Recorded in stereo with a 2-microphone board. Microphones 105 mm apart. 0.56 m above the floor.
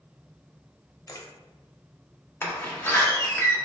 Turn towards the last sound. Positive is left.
turn(degrees=25)  # may be behind; listen again after turning